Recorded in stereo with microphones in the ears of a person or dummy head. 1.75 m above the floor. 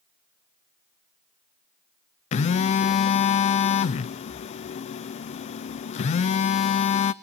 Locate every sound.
2.3 s a phone buzzing: 30° left (ahead or behind), 0.6 m